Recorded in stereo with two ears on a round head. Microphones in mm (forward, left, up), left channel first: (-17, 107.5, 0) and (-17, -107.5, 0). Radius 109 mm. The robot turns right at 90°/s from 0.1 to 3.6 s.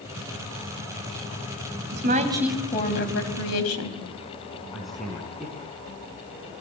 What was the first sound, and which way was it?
A woman speaking, 55° right.